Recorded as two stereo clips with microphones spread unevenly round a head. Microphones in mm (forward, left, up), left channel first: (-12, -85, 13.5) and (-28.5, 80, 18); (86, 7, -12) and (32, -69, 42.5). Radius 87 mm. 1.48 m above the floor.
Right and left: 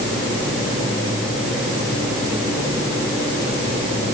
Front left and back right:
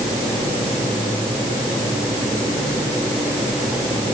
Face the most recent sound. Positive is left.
No sound to turn to.